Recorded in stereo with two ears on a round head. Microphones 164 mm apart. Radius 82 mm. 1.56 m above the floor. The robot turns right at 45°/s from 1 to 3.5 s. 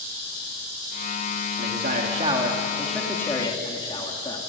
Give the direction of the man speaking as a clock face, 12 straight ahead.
2 o'clock.